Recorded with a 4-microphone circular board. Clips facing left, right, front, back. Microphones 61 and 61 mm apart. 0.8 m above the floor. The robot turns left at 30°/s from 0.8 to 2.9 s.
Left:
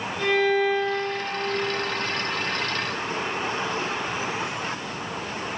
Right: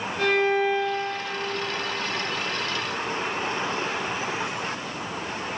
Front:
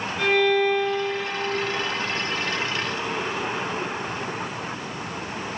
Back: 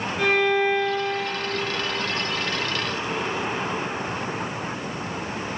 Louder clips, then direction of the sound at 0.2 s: Even, front 1 dB; 115° right.